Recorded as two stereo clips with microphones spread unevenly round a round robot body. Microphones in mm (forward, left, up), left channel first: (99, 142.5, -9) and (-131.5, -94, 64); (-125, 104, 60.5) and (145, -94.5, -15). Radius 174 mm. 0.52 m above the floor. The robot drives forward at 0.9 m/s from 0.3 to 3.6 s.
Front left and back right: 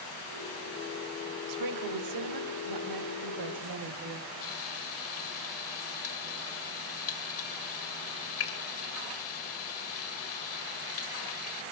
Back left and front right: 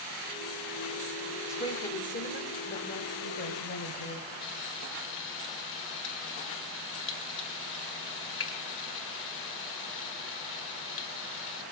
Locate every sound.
1.5 s a woman speaking: 125° right, 1.3 m; by 4.3 s 165° right, 2.5 m
4.4 s frying: 85° left, 1.8 m